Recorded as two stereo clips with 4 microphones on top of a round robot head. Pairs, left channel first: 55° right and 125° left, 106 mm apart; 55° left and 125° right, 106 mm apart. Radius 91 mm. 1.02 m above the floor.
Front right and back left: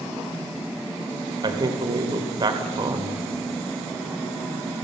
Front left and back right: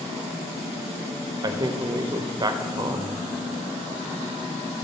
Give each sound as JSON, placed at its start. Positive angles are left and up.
{"t": 1.4, "sound": "a man speaking", "azimuth_deg": 180, "distance_m": 1.3}